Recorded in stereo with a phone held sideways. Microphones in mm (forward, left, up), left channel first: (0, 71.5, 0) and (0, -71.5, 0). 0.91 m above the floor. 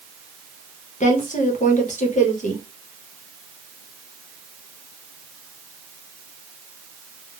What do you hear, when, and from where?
1.0 s a woman speaking: 55° left (ahead or behind), 0.8 m